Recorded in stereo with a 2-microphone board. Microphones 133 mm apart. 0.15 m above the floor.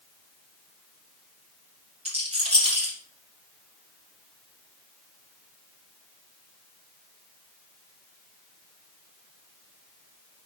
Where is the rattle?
50° right (ahead or behind), 3 m.